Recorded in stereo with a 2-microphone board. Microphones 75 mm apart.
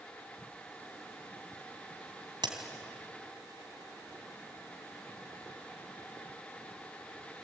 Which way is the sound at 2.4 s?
80° right.